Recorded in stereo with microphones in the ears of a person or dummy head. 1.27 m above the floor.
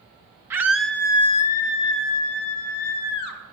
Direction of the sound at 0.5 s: 10° right (ahead or behind).